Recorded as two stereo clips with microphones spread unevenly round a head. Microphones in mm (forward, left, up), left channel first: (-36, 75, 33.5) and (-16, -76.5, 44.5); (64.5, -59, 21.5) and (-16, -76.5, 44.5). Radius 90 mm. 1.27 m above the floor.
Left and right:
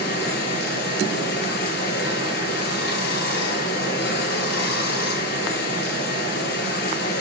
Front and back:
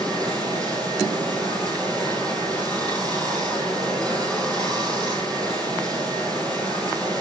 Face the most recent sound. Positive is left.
turn(degrees=105)